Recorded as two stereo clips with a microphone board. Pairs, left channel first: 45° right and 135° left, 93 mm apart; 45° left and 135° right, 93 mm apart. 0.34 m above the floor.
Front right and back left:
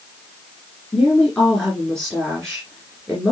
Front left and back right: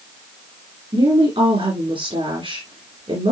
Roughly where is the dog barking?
I don't hear a dog barking.